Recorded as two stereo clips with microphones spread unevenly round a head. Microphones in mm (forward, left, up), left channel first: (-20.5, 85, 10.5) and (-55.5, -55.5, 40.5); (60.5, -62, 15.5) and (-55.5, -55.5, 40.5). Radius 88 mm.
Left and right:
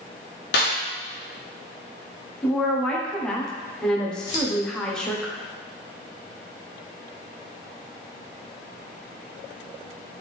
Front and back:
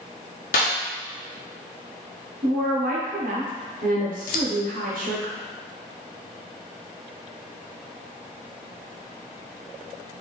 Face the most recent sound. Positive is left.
turn(degrees=0)